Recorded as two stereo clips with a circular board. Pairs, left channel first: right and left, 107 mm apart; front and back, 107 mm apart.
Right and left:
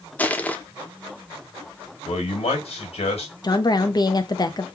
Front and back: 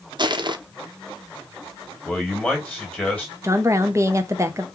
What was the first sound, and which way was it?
Crushing, 160° right.